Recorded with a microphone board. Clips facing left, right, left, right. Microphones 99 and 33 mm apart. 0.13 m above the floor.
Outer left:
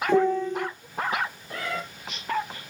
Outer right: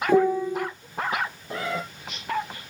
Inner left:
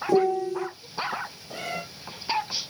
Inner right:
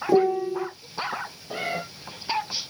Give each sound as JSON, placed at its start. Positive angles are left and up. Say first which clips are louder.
{"t": 0.1, "sound": "a piano", "louder": "outer right 2 dB, inner right 2 dB", "side_deg": -10, "distance_m": 0.6}
{"t": 1.5, "sound": "a cat meowing", "louder": "outer right 3 dB, inner right 5 dB", "side_deg": -25, "distance_m": 1.6}